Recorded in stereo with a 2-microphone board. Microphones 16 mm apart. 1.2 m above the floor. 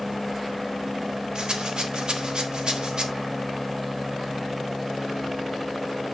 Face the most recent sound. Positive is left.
turn(degrees=-50)  # may be behind; listen again after turning